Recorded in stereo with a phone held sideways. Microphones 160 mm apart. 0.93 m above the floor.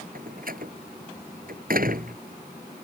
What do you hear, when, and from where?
0.1 s a door slam: 65° right (ahead or behind)